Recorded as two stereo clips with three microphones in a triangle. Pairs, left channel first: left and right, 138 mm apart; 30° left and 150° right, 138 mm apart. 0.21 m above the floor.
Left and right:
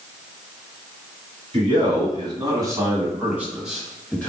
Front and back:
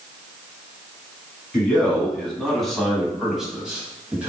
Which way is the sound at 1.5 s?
55° right.